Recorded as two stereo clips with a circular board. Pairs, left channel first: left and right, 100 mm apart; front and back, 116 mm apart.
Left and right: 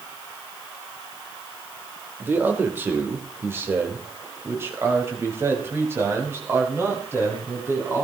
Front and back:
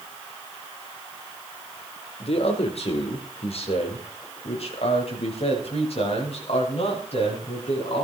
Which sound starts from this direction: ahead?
A man speaking, at 2.2 s.